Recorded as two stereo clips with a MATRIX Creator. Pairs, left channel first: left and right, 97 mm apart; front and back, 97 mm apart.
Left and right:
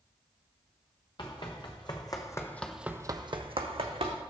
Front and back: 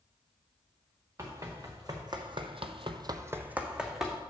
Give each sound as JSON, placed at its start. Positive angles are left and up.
{"t": 1.2, "sound": "running footsteps", "azimuth_deg": 125, "distance_m": 1.9}